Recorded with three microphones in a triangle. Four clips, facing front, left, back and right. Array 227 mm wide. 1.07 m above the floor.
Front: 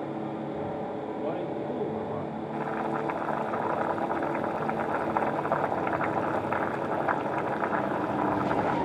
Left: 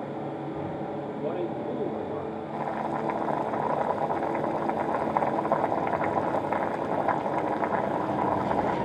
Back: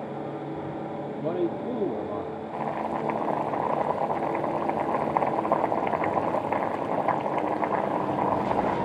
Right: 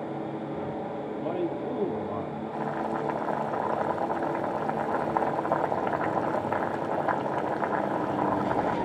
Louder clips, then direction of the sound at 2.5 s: Even, back 1 dB; 165° left.